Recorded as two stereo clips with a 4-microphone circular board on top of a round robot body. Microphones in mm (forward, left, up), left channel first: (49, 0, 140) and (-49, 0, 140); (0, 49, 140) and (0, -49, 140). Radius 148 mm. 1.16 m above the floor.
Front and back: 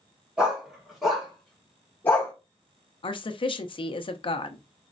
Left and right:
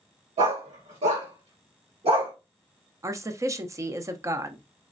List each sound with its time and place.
0.4 s a dog barking: 100° right, 2 m; by 2.3 s 65° right, 1.4 m
3.0 s a woman speaking: 30° right, 0.6 m